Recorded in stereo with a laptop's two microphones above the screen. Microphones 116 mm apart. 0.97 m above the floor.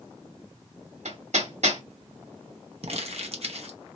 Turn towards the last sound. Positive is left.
turn(degrees=-60)  # may be behind; listen again after turning